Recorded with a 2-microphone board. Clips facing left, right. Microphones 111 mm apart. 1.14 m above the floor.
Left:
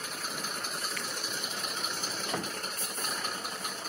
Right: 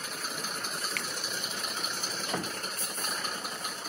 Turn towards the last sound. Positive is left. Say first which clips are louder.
# right 1 dB
turn(degrees=-65)  # may be behind; listen again after turning